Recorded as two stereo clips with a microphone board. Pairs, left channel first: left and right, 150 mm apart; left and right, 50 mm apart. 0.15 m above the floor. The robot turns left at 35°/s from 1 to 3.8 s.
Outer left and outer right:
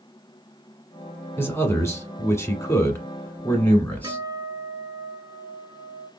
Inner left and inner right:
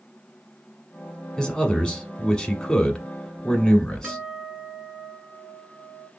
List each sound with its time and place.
1.4 s a man speaking: 15° left (ahead or behind), 1.1 m; by 4.2 s 10° left (ahead or behind), 1.1 m
4.0 s a guitar: 25° right (ahead or behind), 1.4 m